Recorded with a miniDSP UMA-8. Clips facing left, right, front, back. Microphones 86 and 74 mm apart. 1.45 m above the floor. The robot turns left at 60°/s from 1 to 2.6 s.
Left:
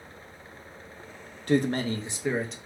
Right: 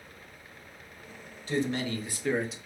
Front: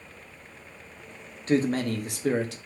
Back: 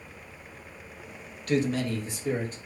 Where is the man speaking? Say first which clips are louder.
Left 5 dB, front 2 dB; 60° left, 0.7 m; by 2.6 s 5° right, 0.7 m.